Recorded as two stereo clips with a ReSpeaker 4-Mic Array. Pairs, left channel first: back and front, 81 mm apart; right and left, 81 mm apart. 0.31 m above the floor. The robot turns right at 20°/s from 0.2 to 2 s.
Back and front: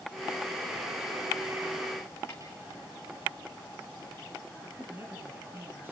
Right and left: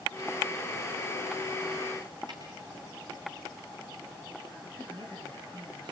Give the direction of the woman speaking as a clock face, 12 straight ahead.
10 o'clock.